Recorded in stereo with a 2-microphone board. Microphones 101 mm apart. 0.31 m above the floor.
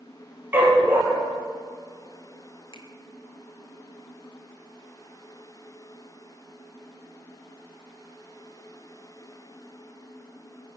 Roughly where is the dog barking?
Centre.